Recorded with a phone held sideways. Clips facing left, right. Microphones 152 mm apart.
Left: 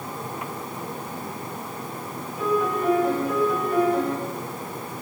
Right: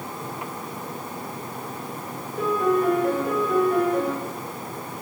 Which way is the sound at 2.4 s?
55° right (ahead or behind).